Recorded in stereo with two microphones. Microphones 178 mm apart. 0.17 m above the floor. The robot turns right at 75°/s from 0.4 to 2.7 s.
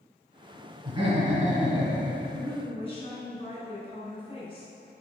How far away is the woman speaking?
About 1.5 m.